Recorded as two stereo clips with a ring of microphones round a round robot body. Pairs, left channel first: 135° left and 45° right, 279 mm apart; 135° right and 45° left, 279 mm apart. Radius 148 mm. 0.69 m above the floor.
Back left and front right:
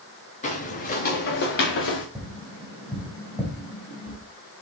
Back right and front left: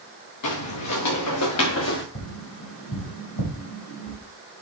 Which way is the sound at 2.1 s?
120° right.